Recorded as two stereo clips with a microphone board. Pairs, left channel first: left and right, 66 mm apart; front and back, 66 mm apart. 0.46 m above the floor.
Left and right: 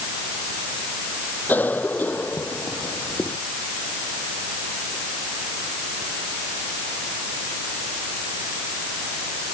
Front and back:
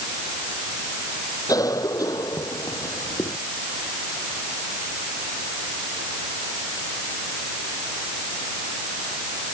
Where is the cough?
25° left.